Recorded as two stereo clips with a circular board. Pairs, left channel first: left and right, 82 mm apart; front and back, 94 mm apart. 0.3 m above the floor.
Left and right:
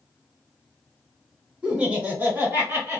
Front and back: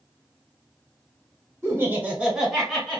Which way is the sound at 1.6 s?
155° right.